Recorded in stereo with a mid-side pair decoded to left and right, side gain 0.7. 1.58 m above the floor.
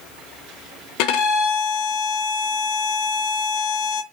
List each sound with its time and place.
1.0 s a violin: 70° left, 0.5 m